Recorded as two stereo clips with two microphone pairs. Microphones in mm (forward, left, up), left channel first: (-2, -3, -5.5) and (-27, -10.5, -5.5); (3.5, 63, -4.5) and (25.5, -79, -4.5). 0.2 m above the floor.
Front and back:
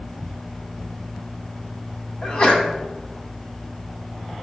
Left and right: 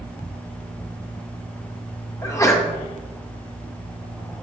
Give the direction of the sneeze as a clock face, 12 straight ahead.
10 o'clock.